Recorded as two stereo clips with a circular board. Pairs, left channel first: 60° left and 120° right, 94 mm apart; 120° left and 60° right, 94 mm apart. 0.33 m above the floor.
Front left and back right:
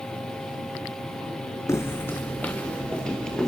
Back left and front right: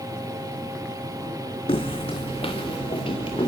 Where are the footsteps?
120° left, 1.3 m; by 3.5 s 145° left, 3.5 m.